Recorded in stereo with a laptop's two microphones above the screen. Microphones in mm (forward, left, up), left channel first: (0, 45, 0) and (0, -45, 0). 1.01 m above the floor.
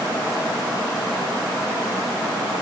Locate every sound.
Only background noise.